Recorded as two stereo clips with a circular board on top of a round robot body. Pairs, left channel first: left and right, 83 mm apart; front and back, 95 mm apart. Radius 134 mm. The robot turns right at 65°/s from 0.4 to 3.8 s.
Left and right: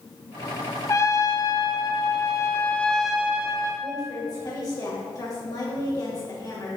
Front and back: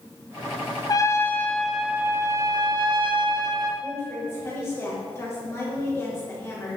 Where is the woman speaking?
55° left, 2 m.